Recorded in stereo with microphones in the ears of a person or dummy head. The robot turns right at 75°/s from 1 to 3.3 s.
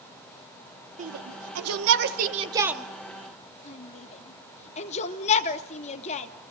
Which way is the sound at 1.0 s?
40° right (ahead or behind).